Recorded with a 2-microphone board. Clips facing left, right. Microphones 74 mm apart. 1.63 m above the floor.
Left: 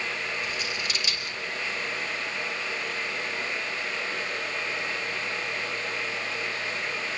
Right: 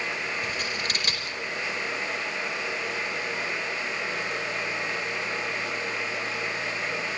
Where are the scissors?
50° right (ahead or behind), 4.5 m.